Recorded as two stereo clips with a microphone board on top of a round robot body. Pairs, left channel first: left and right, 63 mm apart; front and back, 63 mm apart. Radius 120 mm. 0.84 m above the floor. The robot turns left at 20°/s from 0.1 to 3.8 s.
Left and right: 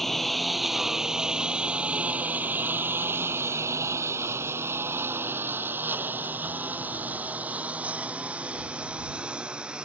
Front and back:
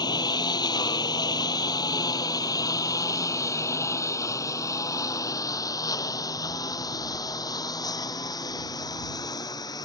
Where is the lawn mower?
5° left; by 9.9 s 15° right.